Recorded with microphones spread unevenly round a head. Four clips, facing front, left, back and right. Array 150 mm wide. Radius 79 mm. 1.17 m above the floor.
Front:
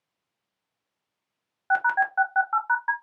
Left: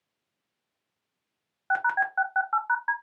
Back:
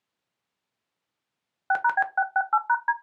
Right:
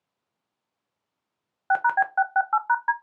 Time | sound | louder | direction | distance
1.7 | a phone buzzing | right 4 dB, front 1 dB | 125° right | 0.6 m